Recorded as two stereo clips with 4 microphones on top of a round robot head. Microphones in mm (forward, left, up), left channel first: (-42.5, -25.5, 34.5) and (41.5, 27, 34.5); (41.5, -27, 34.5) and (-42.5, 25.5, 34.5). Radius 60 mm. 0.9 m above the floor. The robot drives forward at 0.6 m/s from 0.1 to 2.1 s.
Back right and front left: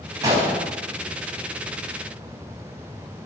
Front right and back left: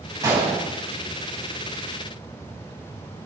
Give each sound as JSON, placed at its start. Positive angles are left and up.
{"t": 0.2, "sound": "a gunshot", "azimuth_deg": 90, "distance_m": 5.0}